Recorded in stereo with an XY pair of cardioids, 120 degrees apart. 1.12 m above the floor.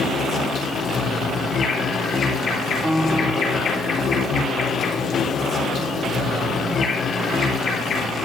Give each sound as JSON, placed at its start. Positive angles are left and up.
{"t": 0.0, "sound": "an insect", "azimuth_deg": 55, "distance_m": 3.5}
{"t": 2.8, "sound": "a piano", "azimuth_deg": 5, "distance_m": 1.4}